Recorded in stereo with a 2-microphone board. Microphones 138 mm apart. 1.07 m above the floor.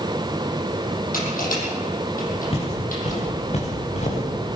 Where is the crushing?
75° left (ahead or behind), 7.5 m.